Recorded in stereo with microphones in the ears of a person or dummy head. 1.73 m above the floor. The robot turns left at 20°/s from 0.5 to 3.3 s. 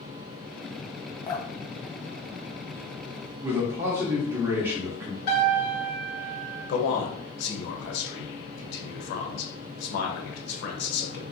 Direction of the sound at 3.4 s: 15° right (ahead or behind).